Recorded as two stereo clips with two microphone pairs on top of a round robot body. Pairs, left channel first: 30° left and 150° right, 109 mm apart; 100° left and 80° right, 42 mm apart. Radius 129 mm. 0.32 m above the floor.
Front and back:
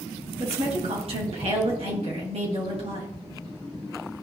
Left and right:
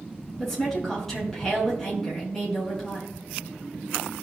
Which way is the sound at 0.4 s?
175° right.